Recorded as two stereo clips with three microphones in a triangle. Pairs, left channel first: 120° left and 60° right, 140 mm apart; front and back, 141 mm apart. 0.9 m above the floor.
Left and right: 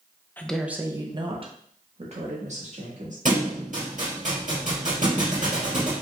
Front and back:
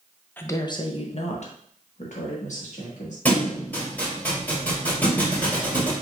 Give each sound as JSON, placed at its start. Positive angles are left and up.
{"t": 0.4, "sound": "a woman speaking", "azimuth_deg": 60, "distance_m": 0.6}
{"t": 3.2, "sound": "a thud", "azimuth_deg": -80, "distance_m": 2.5}